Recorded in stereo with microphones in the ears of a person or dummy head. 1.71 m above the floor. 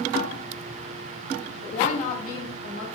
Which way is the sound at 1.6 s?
30° left (ahead or behind).